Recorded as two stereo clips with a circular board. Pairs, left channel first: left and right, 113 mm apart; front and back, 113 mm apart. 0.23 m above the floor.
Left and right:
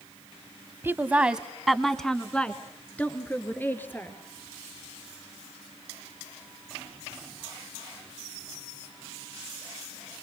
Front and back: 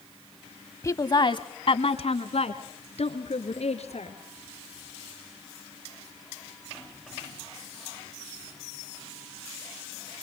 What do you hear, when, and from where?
0.8 s a woman speaking: 40° right, 1.1 m; by 4.2 s 20° left, 3.5 m